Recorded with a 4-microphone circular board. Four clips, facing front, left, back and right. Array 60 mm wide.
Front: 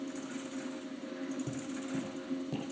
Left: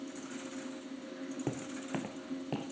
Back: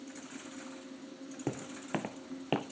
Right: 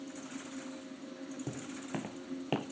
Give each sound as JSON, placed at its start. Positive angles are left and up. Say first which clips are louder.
{"t": 1.5, "sound": "footsteps", "louder": "left 3 dB, even", "azimuth_deg": 150, "distance_m": 1.0}